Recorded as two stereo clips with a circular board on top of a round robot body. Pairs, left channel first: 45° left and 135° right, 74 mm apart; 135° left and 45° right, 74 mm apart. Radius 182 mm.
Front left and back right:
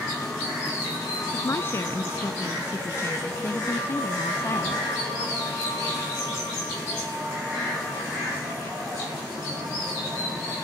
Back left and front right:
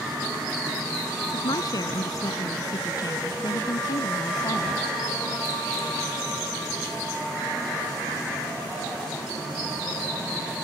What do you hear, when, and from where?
1.3 s a woman speaking: 100° left; by 4.8 s 105° left